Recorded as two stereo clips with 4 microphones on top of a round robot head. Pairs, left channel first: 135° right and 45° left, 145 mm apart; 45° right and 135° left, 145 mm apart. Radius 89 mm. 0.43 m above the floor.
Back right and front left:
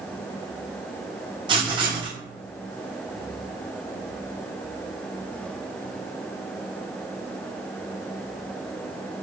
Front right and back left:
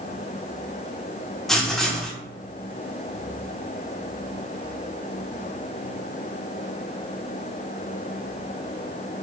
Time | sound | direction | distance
1.5 | writing | 40° left | 0.8 m